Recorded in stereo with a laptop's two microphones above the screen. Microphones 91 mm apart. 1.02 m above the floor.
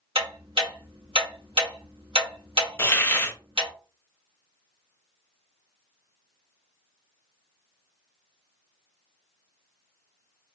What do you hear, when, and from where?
0.1 s ticking: 75° right (ahead or behind), 1.2 m
2.8 s a hiss: 25° left (ahead or behind), 0.6 m